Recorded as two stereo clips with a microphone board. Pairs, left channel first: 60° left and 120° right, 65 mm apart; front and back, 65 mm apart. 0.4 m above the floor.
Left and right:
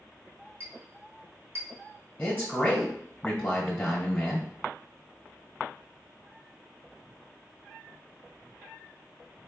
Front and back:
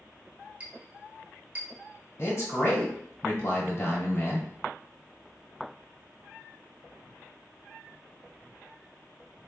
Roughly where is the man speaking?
Ahead.